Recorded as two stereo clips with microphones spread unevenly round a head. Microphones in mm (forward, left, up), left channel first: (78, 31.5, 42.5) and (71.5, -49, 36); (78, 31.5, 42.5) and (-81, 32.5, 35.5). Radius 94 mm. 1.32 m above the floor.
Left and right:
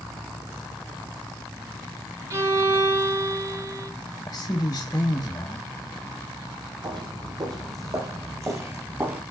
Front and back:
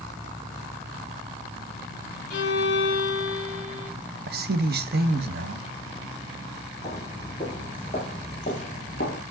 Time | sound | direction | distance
2.3 | a violin | 50° right | 3.5 m
4.3 | a man speaking | 155° left | 1.0 m
6.8 | footsteps | 70° right | 2.5 m